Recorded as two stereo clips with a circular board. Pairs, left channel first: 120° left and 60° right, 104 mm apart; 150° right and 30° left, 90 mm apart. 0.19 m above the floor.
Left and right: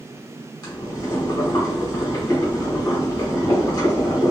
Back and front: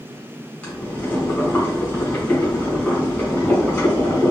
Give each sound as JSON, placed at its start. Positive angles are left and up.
{"t": 0.6, "sound": "boiling", "azimuth_deg": 140, "distance_m": 1.7}